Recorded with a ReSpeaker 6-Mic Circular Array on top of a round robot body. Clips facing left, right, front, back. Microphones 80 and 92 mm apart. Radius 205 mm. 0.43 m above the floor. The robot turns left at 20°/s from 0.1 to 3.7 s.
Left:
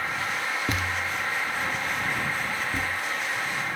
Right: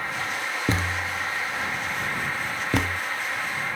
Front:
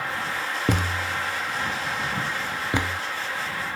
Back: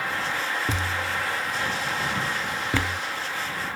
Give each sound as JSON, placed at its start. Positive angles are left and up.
{"t": 0.7, "sound": "a thud", "azimuth_deg": -30}